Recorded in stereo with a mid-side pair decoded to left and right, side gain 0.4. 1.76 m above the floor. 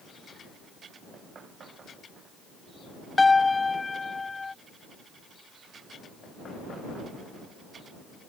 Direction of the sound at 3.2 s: 25° left.